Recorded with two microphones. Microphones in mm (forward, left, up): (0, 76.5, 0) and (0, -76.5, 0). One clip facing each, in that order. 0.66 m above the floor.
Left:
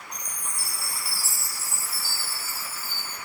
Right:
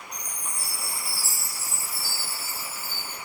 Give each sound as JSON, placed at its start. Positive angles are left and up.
{"t": 0.1, "sound": "a chime", "side_deg": 35, "distance_m": 5.0}